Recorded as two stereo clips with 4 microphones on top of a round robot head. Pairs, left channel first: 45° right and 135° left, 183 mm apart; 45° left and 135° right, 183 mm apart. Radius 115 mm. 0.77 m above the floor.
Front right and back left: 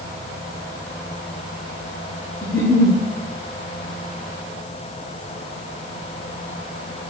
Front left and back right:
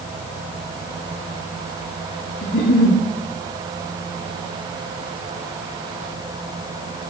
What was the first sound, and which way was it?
A giggle, 30° left.